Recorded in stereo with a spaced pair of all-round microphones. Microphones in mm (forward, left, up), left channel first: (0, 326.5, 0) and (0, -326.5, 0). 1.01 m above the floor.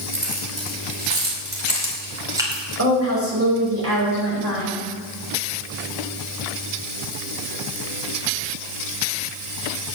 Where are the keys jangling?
50° right (ahead or behind), 3.5 m; by 2.6 s centre (ahead or behind), 3 m.